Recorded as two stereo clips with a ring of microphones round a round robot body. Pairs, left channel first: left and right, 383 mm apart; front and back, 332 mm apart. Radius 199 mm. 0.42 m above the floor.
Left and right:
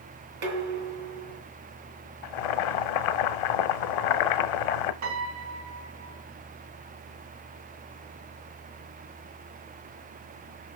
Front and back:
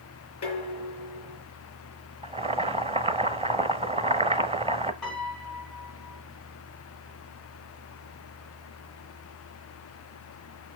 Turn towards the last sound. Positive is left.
turn(degrees=-90)